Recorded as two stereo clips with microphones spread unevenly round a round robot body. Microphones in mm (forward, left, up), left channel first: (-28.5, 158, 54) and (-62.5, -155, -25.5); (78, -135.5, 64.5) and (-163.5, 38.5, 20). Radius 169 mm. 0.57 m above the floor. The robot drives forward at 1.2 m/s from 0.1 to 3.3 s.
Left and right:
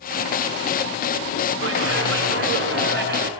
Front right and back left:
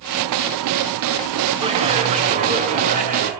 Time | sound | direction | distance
1.6 | a clap | 145° right | 5 m